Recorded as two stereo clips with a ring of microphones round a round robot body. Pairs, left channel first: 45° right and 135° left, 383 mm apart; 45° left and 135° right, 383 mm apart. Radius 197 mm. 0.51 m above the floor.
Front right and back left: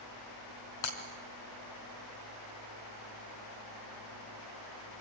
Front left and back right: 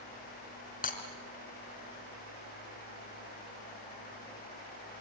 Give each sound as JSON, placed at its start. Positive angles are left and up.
{"t": 0.8, "sound": "breaking glass", "azimuth_deg": -25, "distance_m": 3.0}